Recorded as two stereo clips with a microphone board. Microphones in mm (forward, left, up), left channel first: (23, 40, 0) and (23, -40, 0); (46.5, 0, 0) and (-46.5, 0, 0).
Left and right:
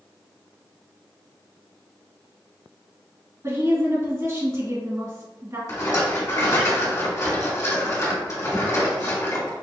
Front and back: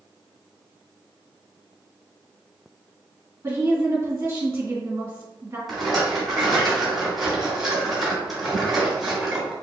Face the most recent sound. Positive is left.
turn(degrees=95)